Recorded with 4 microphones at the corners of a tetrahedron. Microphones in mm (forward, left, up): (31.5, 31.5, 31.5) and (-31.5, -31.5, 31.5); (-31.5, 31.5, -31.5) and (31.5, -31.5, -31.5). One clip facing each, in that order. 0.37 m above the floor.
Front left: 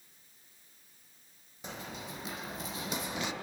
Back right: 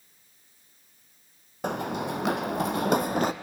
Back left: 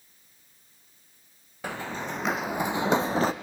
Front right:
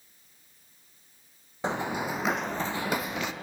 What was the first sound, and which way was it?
Running footsteps, 110° right.